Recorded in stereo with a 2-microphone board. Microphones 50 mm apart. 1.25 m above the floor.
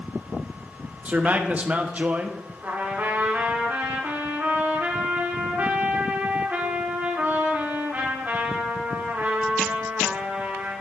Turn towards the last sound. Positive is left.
turn(degrees=-35)  # may be behind; listen again after turning